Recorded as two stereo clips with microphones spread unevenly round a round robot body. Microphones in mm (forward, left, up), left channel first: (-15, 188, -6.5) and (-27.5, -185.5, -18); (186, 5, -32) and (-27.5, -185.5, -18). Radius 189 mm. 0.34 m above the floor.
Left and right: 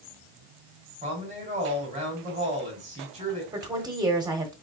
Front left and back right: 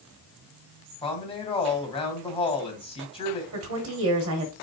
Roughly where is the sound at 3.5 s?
Behind.